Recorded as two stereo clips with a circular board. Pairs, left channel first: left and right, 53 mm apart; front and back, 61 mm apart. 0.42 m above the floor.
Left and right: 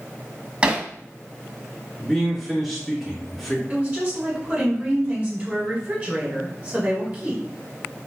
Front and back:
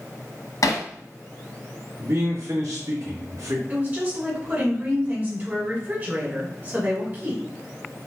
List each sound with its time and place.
0.6 s hammering: 20° right, 0.7 m
2.0 s a man speaking: 175° left, 2 m
3.7 s a woman speaking: 150° right, 1.2 m